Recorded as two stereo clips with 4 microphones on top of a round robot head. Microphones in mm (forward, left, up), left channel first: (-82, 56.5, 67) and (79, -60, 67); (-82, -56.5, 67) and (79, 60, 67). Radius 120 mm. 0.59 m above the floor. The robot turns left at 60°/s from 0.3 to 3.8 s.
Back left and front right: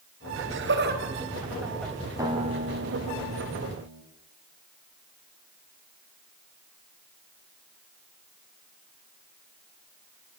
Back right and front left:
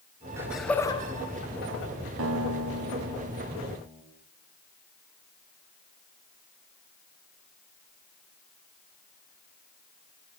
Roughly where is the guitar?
Ahead left.